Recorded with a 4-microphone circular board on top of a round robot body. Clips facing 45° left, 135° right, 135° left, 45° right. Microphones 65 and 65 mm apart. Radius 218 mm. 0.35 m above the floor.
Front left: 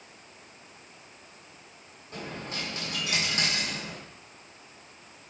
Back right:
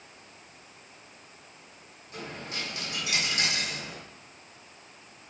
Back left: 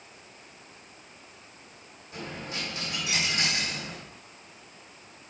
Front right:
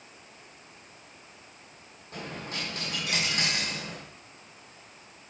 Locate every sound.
2.1 s a dropped coin: 5° right, 2 m